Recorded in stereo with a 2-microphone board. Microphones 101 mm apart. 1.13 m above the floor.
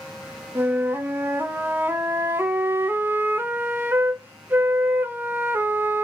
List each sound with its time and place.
0.6 s a flute: 20° right (ahead or behind), 0.6 m